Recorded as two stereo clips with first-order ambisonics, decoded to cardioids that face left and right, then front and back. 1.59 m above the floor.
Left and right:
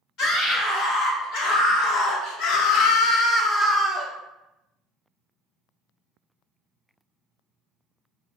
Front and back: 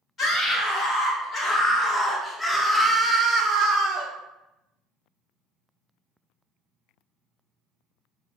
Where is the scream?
60° left, 1.9 m; by 4.1 s 170° right, 0.7 m.